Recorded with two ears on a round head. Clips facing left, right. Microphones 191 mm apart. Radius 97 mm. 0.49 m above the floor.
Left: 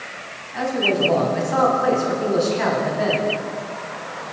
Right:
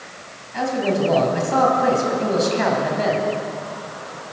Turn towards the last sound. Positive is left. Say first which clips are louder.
# even
turn(degrees=-45)  # may be behind; listen again after turning